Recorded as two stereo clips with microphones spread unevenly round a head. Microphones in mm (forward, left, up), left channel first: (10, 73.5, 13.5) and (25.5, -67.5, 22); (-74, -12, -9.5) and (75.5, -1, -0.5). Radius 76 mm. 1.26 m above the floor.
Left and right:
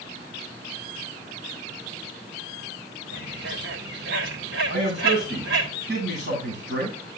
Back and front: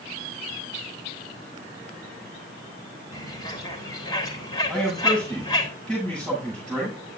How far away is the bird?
About 1.8 m.